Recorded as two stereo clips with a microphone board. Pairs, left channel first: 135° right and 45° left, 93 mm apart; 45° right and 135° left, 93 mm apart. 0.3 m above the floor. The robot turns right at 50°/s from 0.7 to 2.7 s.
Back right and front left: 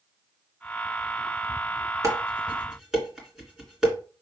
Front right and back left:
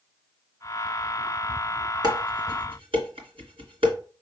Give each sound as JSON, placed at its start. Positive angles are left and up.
{"t": 2.0, "sound": "dishes clattering", "azimuth_deg": 95, "distance_m": 2.5}